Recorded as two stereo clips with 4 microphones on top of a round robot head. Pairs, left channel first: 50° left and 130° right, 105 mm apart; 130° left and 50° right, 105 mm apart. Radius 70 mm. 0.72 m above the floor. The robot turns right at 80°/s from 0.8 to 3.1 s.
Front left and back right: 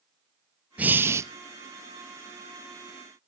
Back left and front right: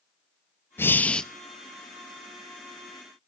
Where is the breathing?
170° left, 0.6 m; by 1.3 s 155° right, 0.6 m.